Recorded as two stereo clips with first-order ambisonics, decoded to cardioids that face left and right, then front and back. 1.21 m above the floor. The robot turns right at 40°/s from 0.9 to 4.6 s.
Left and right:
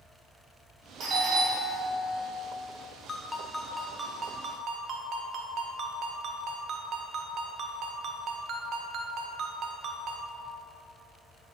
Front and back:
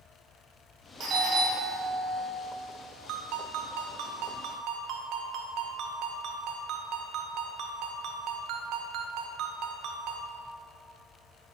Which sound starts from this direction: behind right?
A doorbell, at 1.0 s.